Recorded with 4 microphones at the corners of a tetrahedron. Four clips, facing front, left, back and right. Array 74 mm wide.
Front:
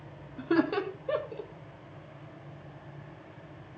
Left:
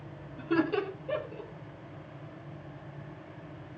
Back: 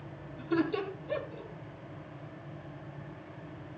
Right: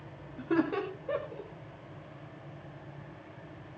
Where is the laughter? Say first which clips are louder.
Left 1 dB, front 3 dB; 15° right, 6 m; by 1.5 s 10° right, 5 m.